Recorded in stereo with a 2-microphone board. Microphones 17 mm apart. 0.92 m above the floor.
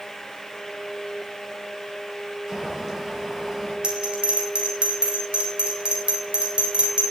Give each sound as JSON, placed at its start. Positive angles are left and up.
{"t": 2.5, "sound": "boiling", "side_deg": -15, "distance_m": 6.5}
{"t": 3.8, "sound": "a bell", "side_deg": -75, "distance_m": 3.5}